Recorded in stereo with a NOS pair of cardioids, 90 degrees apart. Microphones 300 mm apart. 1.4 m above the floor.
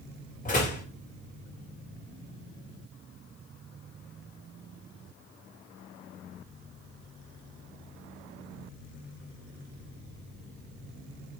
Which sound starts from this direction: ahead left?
A door slam, at 0.5 s.